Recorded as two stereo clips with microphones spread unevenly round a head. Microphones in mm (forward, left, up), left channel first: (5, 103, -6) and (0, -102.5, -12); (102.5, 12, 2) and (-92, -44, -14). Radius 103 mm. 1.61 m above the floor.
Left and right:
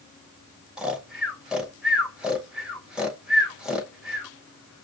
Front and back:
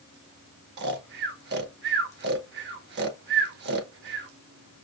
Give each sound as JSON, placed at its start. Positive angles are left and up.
{"t": 0.8, "sound": "snoring", "azimuth_deg": 180, "distance_m": 0.9}